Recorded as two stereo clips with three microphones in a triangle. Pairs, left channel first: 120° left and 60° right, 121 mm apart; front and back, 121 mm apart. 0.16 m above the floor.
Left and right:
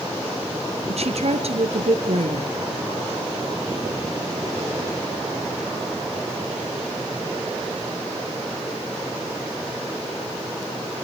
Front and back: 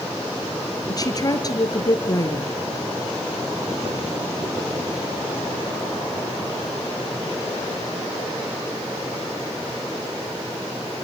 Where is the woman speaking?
55° right, 2.5 m.